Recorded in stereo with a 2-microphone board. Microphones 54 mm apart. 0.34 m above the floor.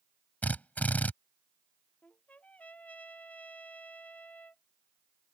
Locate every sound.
0.4 s a drill: 30° left (ahead or behind)
2.0 s a trumpet: 25° left (ahead or behind)